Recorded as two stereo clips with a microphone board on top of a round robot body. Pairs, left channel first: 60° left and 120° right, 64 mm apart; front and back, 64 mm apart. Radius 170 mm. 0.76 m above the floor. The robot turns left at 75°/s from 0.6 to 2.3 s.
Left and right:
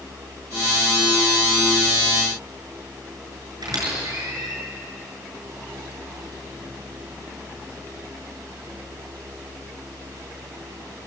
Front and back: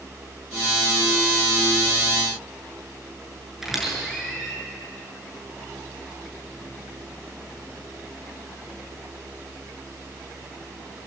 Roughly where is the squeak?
Right.